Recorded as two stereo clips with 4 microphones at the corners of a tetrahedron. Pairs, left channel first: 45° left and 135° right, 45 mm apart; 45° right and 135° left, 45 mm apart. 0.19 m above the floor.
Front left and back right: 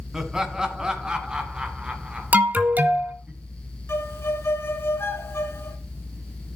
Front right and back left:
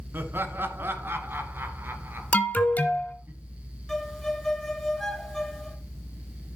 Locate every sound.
0.1 s laughter: 150° left, 2 m; by 3.3 s 165° left, 3.5 m
2.3 s an alarm: 90° right, 1.5 m
3.9 s a violin: 35° left, 1.8 m